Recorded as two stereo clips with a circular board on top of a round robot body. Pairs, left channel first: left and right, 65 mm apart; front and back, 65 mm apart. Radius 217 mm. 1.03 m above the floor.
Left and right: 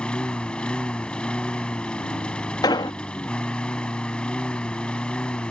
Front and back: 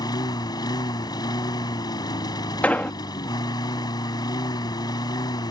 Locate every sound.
0.0 s a lawn mower: 15° left
2.6 s an explosion: 70° left